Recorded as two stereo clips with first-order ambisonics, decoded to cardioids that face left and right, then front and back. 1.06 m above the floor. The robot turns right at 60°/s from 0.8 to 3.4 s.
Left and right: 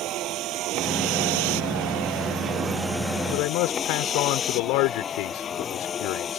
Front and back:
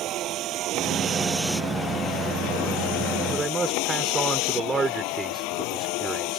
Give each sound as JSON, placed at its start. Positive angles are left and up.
{"t": 0.0, "sound": "a vehicle", "azimuth_deg": -130}
{"t": 3.3, "sound": "a man speaking", "azimuth_deg": 100}